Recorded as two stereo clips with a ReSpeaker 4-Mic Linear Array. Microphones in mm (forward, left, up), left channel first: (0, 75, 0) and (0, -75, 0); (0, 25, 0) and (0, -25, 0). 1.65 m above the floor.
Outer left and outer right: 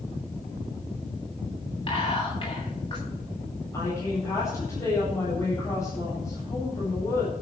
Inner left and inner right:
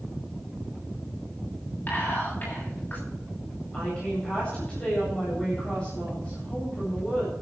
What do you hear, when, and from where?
1.9 s whispering: 35° left (ahead or behind), 10 m
3.7 s a woman speaking: 20° left (ahead or behind), 8.5 m